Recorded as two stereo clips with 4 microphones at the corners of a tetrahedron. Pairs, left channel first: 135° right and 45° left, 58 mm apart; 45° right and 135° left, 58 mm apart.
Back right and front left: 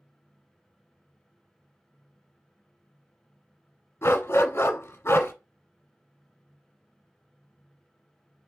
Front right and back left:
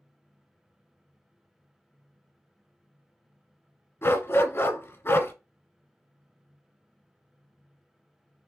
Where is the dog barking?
90° right, 0.9 m.